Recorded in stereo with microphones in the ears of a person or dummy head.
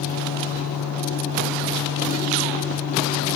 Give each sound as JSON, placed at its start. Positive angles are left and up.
{"t": 0.0, "sound": "a fan", "side_deg": 70, "distance_m": 2.5}